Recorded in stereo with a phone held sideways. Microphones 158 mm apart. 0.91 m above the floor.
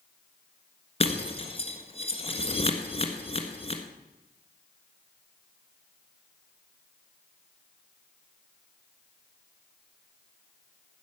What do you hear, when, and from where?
1.0 s breaking glass: 40° left (ahead or behind), 1.4 m